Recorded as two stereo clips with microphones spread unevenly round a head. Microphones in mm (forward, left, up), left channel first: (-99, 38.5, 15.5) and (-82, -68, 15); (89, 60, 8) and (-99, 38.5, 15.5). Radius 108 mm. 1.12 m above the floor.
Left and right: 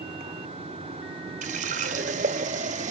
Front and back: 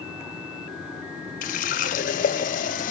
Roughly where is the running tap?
Ahead right.